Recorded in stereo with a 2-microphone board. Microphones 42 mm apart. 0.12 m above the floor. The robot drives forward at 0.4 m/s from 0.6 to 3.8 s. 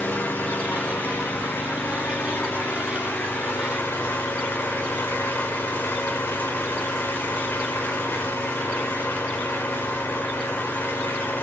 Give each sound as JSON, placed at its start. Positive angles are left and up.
{"t": 0.0, "sound": "an engine running", "side_deg": 65, "distance_m": 3.0}